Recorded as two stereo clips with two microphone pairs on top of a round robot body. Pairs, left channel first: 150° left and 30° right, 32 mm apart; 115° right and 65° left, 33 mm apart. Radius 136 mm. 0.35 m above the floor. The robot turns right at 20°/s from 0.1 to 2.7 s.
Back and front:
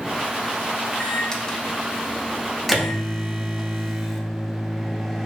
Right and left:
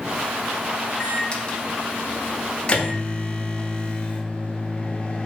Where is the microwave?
155° right, 0.9 m; by 5.3 s 120° right, 0.9 m.